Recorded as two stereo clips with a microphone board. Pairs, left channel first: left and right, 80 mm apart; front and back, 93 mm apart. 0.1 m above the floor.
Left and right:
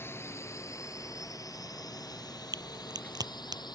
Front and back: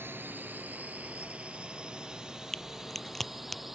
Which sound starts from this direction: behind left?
A drone, at 0.0 s.